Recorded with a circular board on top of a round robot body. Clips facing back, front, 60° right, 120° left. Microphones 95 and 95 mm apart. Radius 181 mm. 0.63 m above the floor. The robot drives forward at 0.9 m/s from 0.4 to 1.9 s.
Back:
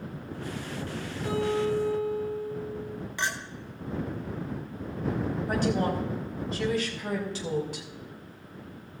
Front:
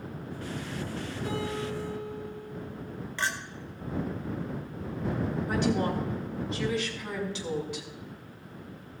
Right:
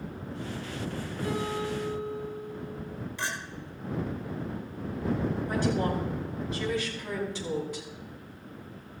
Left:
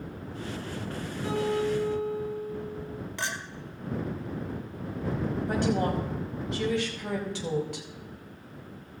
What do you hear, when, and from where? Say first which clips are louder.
1.2 s a guitar: back 7 dB, left 5 dB; 175° left, 6.5 m
3.2 s a clink: even, even; 105° left, 1.8 m
5.5 s a woman speaking: back 1 dB, left 2 dB; 130° left, 4.5 m